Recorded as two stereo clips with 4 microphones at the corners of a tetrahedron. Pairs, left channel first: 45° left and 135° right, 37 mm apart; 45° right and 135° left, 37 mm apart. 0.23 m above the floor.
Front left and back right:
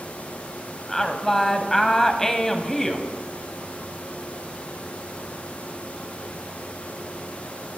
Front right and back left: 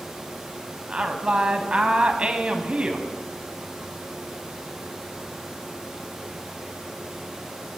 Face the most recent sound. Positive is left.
turn(degrees=110)